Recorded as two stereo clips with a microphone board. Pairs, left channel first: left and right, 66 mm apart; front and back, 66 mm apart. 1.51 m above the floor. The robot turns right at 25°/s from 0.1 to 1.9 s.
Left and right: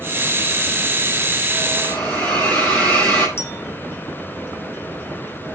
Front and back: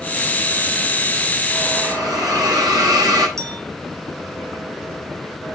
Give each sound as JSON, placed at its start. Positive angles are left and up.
{"t": 1.8, "sound": "a hiss", "azimuth_deg": 155, "distance_m": 7.5}
{"t": 3.4, "sound": "a clink", "azimuth_deg": 140, "distance_m": 2.5}